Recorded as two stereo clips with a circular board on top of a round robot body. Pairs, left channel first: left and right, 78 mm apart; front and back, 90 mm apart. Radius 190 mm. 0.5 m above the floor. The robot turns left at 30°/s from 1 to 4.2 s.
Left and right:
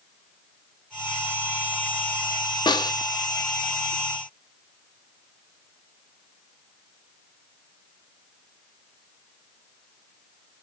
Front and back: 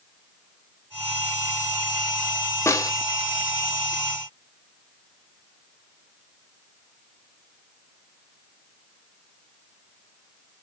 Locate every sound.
2.7 s a snare drum: 60° left, 1.3 m; by 2.9 s 50° left, 1.3 m